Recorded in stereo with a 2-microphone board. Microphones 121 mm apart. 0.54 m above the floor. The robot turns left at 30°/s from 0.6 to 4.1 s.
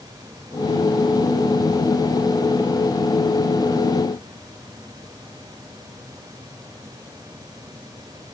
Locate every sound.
Only background noise.